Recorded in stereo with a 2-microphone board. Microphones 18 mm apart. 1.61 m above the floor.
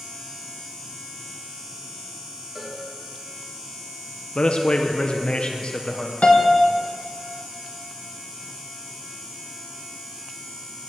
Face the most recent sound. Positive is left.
turn(degrees=70)  # may be behind; listen again after turning